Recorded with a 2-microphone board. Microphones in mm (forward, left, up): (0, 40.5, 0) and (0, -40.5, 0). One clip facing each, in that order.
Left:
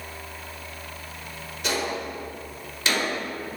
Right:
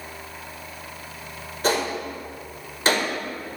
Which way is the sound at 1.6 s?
40° right (ahead or behind).